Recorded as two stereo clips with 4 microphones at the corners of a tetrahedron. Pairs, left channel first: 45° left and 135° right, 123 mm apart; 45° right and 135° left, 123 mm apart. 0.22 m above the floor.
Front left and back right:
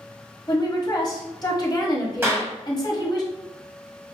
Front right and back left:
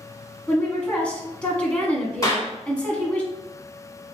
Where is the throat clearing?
No throat clearing in this recording.